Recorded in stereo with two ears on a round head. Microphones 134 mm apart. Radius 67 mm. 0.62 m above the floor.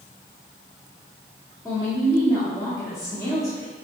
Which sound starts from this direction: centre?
A woman speaking, at 1.6 s.